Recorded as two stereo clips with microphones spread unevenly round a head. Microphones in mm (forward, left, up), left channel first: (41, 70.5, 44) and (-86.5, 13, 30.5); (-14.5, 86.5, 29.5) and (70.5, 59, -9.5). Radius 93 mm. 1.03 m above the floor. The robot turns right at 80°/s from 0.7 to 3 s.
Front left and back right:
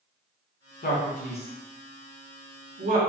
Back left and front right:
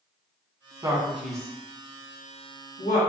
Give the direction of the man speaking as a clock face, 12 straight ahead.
11 o'clock.